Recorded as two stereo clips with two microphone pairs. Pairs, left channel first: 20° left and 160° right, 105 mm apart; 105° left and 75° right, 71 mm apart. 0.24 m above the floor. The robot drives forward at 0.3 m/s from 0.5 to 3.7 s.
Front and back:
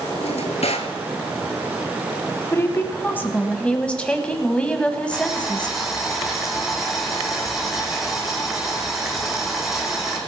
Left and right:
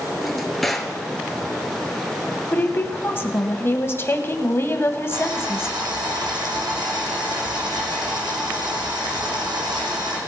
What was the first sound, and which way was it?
A drawer, 15° left.